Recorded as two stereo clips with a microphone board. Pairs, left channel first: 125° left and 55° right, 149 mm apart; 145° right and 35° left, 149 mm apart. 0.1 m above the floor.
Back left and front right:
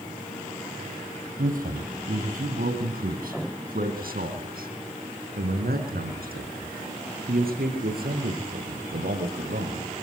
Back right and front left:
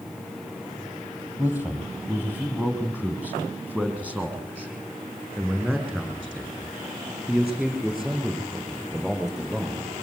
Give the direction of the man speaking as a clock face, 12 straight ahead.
1 o'clock.